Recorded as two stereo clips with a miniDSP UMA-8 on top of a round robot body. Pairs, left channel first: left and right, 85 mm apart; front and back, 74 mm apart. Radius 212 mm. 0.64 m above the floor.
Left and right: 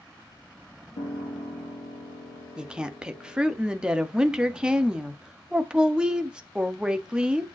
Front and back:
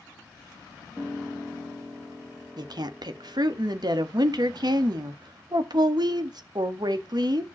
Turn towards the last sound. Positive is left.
turn(degrees=-170)